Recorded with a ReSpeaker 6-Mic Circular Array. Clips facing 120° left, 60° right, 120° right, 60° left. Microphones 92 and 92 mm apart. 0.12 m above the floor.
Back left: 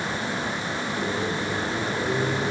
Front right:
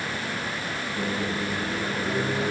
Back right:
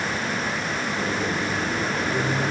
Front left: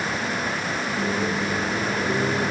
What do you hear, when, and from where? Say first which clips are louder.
1.0 s a microwave: even, front left 2 dB; 75° right, 1.2 m